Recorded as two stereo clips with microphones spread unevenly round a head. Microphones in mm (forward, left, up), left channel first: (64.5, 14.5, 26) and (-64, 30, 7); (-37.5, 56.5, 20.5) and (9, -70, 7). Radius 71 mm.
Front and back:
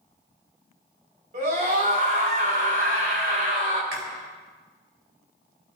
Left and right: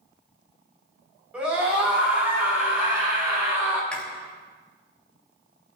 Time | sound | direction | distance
1.3 | a scream | 150° right | 5 m
3.9 | chewing | 170° right | 3 m